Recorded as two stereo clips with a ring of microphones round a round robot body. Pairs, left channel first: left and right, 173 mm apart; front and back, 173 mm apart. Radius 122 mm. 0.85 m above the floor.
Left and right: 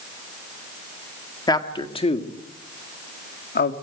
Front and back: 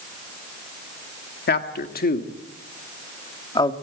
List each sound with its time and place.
1.5 s a man speaking: 20° left, 2 m; by 3.7 s 65° left, 1.9 m